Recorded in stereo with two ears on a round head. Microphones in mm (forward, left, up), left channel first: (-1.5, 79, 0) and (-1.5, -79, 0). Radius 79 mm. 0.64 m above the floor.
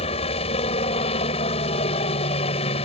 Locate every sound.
0.0 s a helicopter: 35° left (ahead or behind)